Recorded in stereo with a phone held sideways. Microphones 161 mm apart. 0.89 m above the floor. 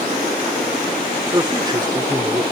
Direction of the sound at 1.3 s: 30° right (ahead or behind).